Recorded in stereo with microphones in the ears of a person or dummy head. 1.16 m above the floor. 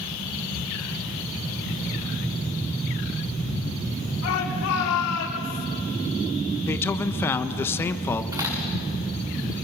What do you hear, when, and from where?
4.2 s a shout: 80° left, 3 m; by 5.7 s 75° left (ahead or behind), 1.8 m
6.7 s a man speaking: 15° left (ahead or behind), 1.1 m
8.3 s a crack: 20° right (ahead or behind), 5 m